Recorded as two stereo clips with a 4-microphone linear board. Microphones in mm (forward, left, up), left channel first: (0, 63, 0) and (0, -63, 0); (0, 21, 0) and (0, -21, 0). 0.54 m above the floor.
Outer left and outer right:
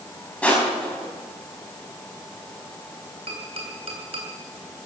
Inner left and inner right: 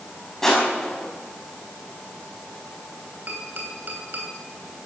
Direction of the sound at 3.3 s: 50° right (ahead or behind).